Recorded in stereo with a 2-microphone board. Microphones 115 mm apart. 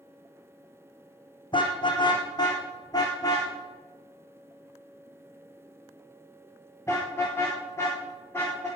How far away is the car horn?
About 3 m.